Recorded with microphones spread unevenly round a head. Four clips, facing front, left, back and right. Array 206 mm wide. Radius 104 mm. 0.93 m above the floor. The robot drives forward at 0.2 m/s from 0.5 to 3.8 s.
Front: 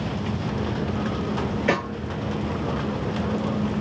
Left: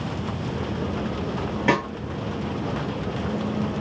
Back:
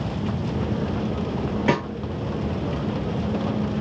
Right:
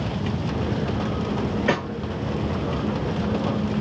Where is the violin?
I don't hear a violin.